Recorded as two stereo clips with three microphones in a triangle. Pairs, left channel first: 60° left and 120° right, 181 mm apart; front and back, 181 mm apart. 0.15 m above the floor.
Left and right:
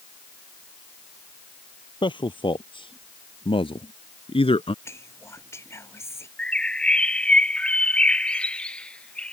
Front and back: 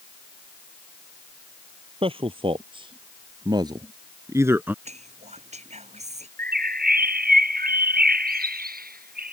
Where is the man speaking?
120° left; by 4.8 s 105° left.